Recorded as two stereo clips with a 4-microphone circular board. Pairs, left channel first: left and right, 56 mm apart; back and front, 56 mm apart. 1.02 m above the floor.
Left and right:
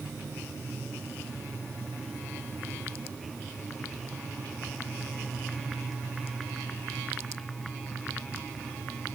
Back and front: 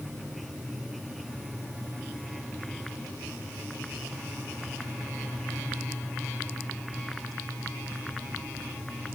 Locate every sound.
Only background noise.